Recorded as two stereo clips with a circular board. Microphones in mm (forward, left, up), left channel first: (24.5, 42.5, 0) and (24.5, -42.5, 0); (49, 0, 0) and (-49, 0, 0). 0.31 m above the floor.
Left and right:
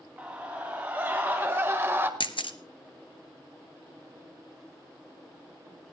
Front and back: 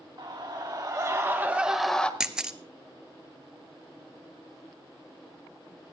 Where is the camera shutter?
95° left, 1.0 m.